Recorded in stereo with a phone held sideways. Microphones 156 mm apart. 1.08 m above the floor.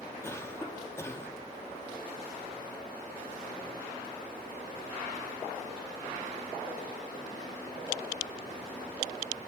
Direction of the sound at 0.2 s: 15° left (ahead or behind).